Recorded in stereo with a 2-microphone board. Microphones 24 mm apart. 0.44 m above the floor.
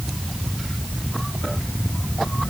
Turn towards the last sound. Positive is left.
No sound to turn to.